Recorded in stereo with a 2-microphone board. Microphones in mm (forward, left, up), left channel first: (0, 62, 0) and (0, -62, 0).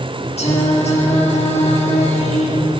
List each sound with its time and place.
0.4 s singing: 60° left (ahead or behind), 6.5 m